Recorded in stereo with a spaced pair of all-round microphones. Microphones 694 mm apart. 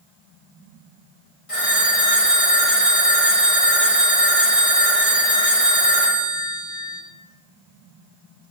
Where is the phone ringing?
50° left (ahead or behind), 1.2 m.